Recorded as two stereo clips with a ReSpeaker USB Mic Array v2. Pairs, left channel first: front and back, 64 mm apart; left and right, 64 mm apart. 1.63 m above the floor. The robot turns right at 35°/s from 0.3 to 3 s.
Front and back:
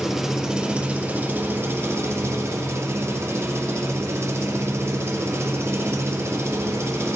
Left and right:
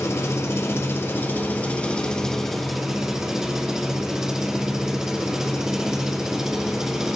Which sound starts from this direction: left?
An engine running, at 0.0 s.